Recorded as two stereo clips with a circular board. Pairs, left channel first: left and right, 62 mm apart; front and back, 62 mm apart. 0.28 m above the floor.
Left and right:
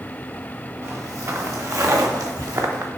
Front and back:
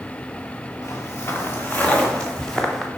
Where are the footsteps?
40° right, 1.5 m; by 2.9 s 85° right, 1.6 m.